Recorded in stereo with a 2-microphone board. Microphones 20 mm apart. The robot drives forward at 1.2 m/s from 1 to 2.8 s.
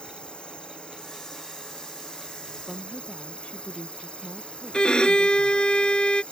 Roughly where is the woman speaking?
Left.